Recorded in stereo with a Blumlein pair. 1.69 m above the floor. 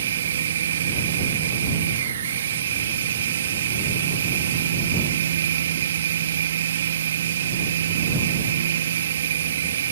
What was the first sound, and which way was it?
A machine running, 65° right.